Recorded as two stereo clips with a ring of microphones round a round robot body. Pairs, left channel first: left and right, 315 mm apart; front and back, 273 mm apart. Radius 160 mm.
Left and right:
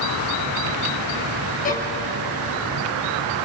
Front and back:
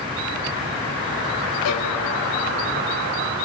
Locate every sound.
1.6 s a violin: 25° left, 5 m